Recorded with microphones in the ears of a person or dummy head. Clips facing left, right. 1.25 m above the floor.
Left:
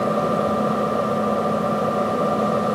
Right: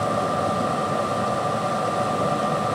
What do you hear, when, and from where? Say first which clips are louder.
0.0 s an engine running: left 3 dB; 45° left (ahead or behind)